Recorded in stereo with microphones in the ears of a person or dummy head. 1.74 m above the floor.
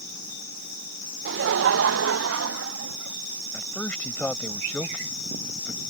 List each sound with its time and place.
1.2 s laughter: 65° right (ahead or behind); by 3.2 s 80° right
3.5 s a man speaking: 5° left (ahead or behind)